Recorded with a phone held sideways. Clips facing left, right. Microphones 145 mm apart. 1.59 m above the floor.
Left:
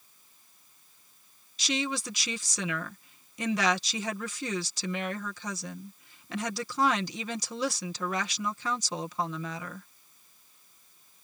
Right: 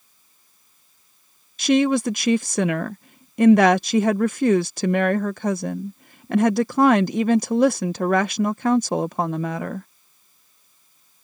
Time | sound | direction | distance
1.6 | a woman speaking | 55° right (ahead or behind) | ?